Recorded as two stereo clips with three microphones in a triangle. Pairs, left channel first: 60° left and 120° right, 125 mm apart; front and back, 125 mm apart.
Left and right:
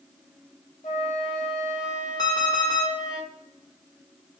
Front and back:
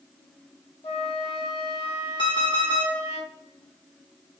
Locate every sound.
0.8 s a flute: 40° left, 1.4 m
2.2 s an alarm clock: 20° left, 1.4 m